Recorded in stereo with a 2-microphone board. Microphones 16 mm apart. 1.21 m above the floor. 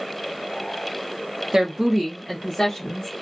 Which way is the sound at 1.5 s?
55° right (ahead or behind).